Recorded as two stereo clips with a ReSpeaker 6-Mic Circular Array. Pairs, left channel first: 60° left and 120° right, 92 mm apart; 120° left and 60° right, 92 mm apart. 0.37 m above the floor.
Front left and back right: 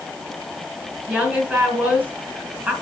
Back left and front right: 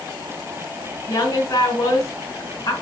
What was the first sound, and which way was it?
A woman speaking, 170° left.